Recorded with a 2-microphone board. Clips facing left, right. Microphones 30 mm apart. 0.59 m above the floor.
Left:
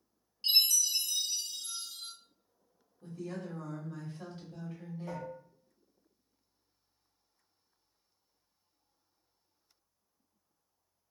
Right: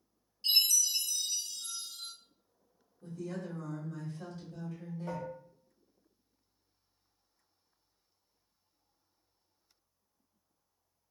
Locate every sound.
0.4 s a chime: 35° left (ahead or behind), 1.5 m
3.0 s a woman speaking: 30° left (ahead or behind), 1.4 m
5.1 s dishes clattering: 45° right (ahead or behind), 0.7 m